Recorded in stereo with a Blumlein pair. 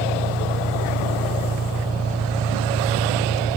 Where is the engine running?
15° right.